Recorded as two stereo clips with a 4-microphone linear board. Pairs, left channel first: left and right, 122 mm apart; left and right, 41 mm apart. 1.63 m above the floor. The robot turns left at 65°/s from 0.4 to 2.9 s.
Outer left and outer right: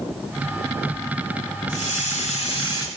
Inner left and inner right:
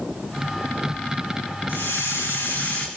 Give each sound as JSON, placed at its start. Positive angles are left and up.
{"t": 1.7, "sound": "a hiss", "azimuth_deg": 105, "distance_m": 3.5}